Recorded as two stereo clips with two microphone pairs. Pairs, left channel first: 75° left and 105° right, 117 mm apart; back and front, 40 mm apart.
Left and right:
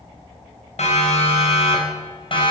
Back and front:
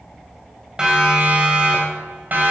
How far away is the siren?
About 4.5 m.